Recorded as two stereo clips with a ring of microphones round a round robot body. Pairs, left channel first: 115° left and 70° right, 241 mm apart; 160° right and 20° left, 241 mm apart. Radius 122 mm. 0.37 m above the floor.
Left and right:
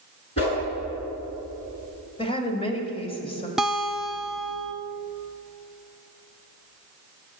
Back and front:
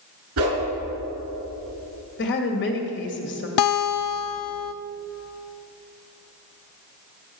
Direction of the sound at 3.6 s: 155° right.